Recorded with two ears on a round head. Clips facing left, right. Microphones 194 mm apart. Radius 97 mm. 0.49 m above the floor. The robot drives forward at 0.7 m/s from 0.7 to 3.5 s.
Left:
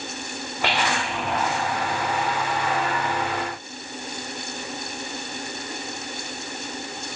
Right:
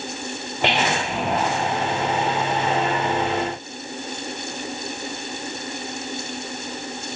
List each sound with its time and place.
0.6 s whispering: 20° right (ahead or behind), 1.1 m; by 1.2 s 15° right (ahead or behind), 1.3 m